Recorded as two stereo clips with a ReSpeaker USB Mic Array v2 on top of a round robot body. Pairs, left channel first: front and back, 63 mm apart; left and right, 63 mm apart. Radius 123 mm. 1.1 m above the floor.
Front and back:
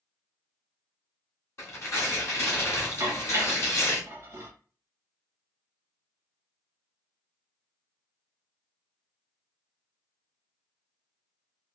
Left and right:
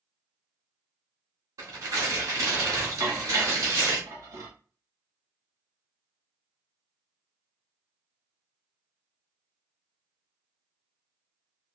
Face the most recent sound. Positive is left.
turn(degrees=-130)